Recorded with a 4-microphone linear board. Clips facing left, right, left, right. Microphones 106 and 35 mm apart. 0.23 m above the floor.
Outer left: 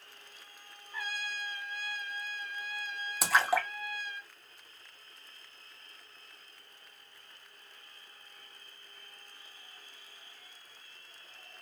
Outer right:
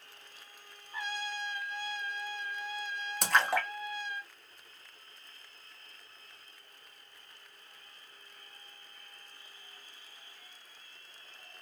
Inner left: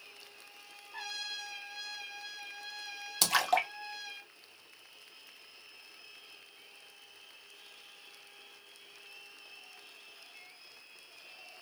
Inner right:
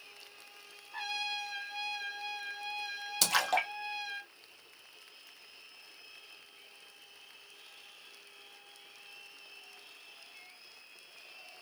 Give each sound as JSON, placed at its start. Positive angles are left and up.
{"t": 0.9, "sound": "a trumpet", "side_deg": -25, "distance_m": 1.5}
{"t": 3.2, "sound": "a splash", "side_deg": 5, "distance_m": 1.0}